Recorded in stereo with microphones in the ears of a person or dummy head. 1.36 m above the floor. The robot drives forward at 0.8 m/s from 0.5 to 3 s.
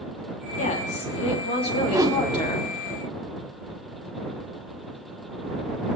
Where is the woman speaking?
45° left (ahead or behind), 3 m; by 2.7 s 25° left (ahead or behind), 4 m.